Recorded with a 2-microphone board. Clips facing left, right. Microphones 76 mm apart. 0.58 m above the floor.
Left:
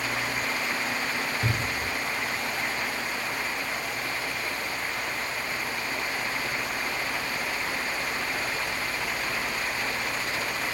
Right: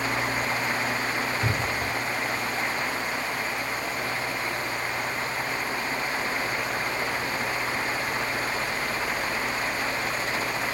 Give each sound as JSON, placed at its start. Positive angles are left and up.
{"t": 1.4, "sound": "a cupboard door", "side_deg": 10, "distance_m": 3.5}